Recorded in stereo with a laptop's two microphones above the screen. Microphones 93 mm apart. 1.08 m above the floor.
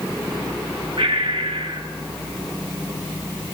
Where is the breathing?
70° right (ahead or behind), 1.9 m.